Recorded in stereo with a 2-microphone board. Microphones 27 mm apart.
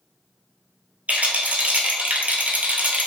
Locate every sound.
1.1 s a rattle: 60° right (ahead or behind), 0.9 m